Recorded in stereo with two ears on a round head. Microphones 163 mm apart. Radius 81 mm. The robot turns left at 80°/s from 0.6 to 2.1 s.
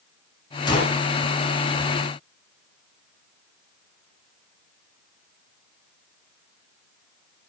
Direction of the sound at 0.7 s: 25° left (ahead or behind).